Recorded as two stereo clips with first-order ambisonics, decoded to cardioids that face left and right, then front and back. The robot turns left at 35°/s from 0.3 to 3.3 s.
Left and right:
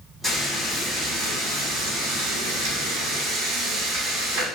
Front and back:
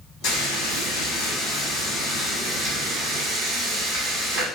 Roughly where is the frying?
Ahead.